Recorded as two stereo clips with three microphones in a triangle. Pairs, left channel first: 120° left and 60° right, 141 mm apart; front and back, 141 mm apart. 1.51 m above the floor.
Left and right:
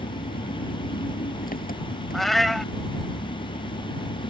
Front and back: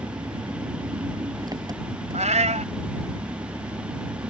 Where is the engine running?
115° left.